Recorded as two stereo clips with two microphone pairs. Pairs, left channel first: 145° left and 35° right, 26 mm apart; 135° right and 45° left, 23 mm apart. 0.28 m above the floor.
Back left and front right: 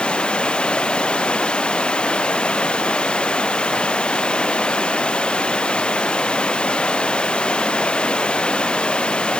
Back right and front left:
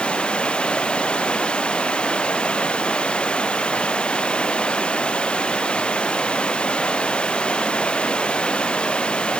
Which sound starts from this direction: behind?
Running water, at 0.0 s.